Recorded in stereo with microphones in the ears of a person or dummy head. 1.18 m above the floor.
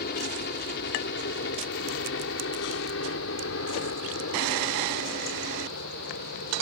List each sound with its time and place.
0.0 s a helicopter: 55° left (ahead or behind); by 6.6 s 70° left (ahead or behind)